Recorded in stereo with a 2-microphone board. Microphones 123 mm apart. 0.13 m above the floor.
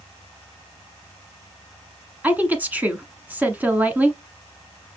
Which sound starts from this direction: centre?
A woman speaking, at 2.2 s.